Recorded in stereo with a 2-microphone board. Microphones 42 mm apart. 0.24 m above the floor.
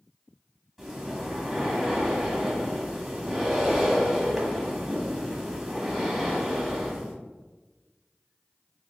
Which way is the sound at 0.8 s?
5° right (ahead or behind).